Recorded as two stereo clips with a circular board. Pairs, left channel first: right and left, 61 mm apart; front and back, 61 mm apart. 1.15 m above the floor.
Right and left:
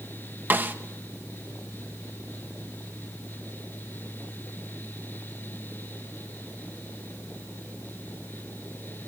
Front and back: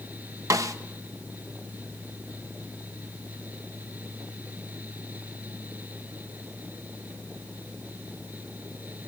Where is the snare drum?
150° left, 1.0 m.